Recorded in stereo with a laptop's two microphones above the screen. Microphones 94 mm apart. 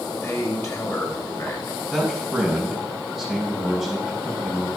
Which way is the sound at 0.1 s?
35° left (ahead or behind).